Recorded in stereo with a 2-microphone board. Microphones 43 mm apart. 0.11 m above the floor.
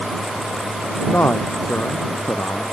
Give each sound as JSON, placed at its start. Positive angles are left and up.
{"t": 1.1, "sound": "a man speaking", "side_deg": 80}